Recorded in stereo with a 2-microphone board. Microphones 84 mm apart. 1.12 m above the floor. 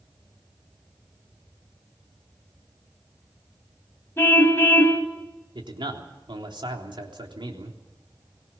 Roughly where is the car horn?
Left.